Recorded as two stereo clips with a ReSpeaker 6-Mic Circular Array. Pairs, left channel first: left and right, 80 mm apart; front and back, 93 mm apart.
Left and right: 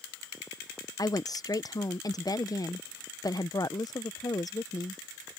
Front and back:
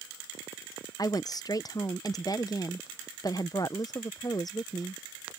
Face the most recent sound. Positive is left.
turn(degrees=50)